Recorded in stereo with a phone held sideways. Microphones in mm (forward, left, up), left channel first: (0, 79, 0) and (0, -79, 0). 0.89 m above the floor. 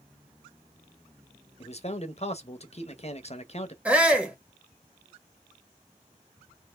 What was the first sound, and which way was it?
A man speaking, 45° left (ahead or behind).